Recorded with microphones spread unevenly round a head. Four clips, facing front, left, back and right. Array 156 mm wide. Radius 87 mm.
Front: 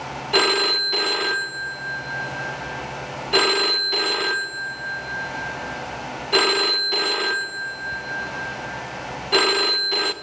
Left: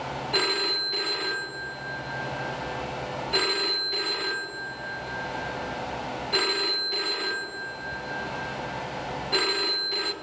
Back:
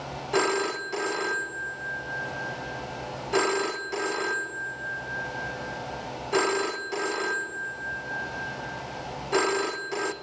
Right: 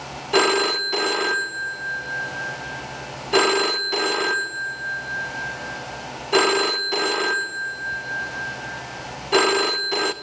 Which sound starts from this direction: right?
A phone ringing, at 0.3 s.